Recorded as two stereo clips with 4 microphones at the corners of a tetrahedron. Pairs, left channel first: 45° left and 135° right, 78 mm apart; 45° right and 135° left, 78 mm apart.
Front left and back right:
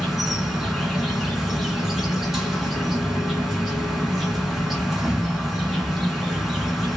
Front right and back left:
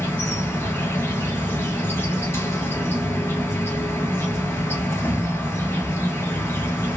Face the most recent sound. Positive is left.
turn(degrees=-50)